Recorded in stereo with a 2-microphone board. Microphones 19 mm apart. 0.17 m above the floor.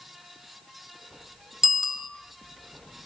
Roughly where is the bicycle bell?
Right.